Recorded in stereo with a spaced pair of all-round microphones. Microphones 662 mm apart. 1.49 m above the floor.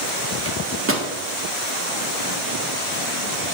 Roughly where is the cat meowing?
No cat meowing in this recording.